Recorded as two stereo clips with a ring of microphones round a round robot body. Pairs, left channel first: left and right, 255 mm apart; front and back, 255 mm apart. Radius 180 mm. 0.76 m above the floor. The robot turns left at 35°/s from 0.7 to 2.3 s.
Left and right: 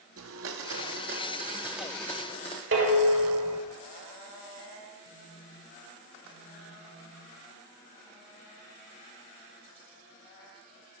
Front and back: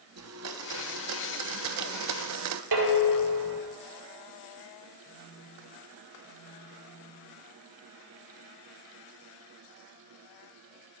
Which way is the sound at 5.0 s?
60° right.